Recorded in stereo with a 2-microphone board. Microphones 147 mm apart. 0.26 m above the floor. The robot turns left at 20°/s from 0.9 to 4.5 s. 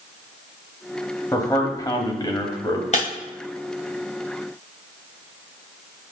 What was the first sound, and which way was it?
A man speaking, 25° left (ahead or behind).